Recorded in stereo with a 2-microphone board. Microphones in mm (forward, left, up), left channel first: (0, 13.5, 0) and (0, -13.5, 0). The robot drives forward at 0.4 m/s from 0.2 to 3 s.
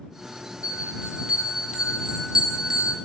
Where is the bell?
40° right (ahead or behind), 1.4 m; by 3.0 s 25° right (ahead or behind), 2 m.